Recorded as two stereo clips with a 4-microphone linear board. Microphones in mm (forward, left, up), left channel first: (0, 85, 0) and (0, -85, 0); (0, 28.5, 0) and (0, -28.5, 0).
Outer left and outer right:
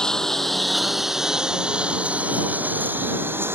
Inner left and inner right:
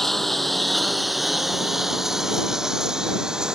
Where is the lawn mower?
5° left (ahead or behind); by 3.6 s 15° right (ahead or behind).